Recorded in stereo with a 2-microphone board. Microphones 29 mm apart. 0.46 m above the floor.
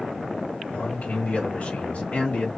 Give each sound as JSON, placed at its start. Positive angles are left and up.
{"t": 0.7, "sound": "a man speaking", "side_deg": 65, "distance_m": 2.5}